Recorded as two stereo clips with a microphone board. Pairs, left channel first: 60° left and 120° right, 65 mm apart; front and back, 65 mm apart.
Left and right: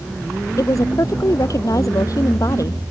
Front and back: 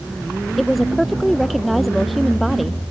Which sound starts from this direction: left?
A woman speaking, at 0.6 s.